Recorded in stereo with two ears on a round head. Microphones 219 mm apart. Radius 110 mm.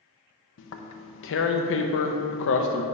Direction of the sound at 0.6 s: 55° left (ahead or behind).